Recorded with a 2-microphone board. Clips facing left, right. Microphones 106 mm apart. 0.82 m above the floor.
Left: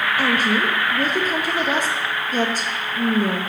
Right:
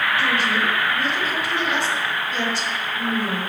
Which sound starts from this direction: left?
A woman speaking, at 0.2 s.